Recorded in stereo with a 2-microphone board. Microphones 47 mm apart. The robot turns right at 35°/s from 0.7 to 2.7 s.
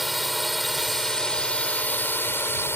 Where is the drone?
5° right; by 2.8 s 65° left.